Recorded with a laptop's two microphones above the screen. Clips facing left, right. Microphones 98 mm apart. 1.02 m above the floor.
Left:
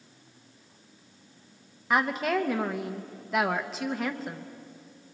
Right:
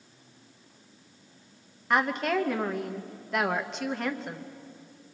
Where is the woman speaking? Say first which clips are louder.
Even; 5° left (ahead or behind), 1.0 m.